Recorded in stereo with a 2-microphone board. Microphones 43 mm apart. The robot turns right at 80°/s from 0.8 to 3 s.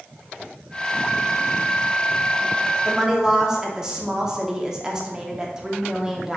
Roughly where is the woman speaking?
Centre.